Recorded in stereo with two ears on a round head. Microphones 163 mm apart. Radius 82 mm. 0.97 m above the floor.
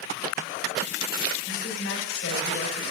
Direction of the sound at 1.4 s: 85° left.